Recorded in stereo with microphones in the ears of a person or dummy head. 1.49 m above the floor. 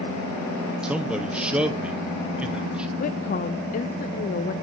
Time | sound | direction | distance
0.8 | a man speaking | centre (ahead or behind) | 1.0 m
3.0 | a woman speaking | 40° left (ahead or behind) | 0.6 m